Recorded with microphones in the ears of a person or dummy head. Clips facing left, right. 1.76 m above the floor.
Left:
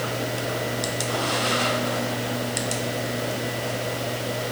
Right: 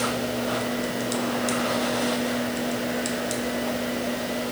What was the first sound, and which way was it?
Only background noise.